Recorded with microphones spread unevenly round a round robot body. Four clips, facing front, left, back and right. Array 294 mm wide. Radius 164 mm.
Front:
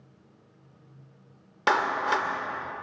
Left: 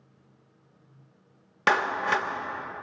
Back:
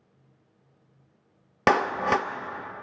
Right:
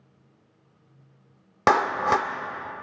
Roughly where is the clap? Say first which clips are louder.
Right 4 dB, back 2 dB; behind right.